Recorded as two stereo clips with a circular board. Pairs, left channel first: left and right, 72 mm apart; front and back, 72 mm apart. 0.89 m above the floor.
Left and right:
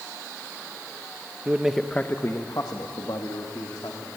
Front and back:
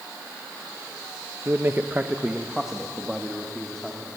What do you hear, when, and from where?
1.4 s a man speaking: 145° right, 1.0 m; by 4.1 s 85° left, 3 m